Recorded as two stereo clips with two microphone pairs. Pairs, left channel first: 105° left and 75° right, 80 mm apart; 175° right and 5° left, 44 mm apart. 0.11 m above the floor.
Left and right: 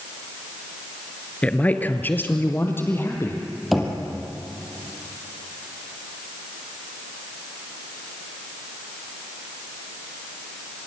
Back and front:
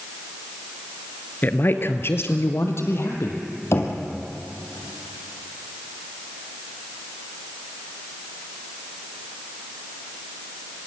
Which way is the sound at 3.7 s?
160° right.